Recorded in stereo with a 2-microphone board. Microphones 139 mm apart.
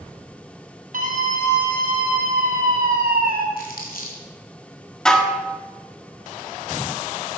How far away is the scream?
About 3.5 m.